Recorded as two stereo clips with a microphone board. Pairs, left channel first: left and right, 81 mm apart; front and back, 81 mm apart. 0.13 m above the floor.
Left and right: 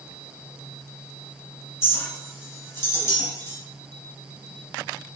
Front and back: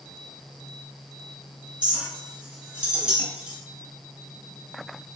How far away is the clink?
About 1.0 m.